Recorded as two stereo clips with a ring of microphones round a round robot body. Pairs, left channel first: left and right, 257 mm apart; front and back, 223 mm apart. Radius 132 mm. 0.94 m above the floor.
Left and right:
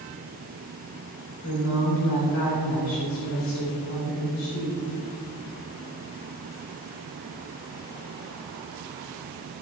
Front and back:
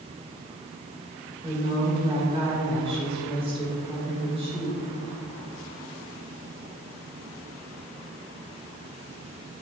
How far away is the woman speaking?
About 3 m.